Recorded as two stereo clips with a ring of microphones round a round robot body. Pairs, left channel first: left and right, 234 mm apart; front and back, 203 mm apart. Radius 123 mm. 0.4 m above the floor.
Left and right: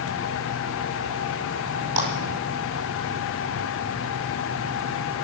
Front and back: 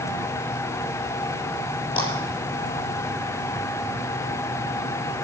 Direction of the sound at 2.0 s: 70° right.